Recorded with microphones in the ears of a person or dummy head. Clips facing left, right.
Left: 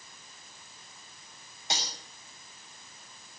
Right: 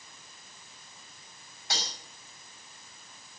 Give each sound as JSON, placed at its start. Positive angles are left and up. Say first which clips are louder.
{"t": 1.7, "sound": "cutlery clinking", "louder": "left 1 dB", "side_deg": 25, "distance_m": 5.5}